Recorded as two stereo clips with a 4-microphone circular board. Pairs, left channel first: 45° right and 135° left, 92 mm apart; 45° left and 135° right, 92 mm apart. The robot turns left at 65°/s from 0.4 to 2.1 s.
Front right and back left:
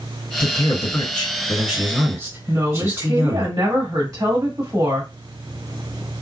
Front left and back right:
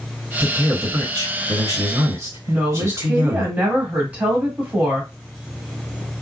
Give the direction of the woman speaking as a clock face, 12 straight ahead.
7 o'clock.